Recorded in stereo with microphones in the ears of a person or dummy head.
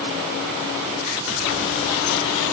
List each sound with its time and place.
Only background noise.